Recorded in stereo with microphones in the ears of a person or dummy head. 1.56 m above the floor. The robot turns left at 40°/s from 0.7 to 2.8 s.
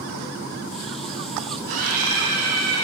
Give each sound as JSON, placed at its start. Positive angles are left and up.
{"t": 1.7, "sound": "a scream", "azimuth_deg": -65, "distance_m": 4.5}